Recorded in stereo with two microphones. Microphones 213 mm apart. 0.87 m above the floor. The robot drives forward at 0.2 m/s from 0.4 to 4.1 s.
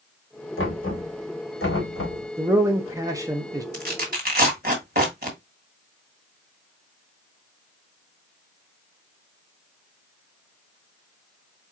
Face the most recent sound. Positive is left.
turn(degrees=-45)  # may be behind; listen again after turning